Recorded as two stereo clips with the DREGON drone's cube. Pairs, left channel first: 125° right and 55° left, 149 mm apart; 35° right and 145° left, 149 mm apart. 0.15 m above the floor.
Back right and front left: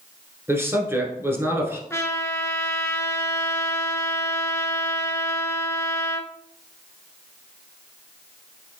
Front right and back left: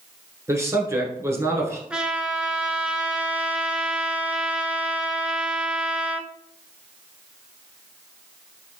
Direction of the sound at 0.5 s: 105° left.